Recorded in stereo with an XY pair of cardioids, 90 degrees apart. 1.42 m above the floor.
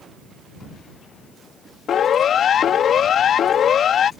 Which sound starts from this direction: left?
A siren, at 1.9 s.